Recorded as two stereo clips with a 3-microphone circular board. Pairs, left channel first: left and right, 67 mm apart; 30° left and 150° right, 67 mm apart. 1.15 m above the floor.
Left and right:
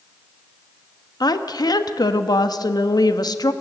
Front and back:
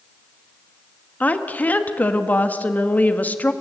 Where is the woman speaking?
95° left, 1.3 m.